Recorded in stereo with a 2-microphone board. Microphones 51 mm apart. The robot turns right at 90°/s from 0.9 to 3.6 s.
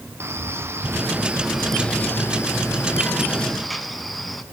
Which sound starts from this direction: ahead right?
A man speaking, at 0.2 s.